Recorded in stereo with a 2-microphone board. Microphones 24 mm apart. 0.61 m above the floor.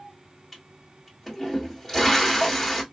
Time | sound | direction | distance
0.5 | a toilet flushing | 10° left (ahead or behind) | 1.4 m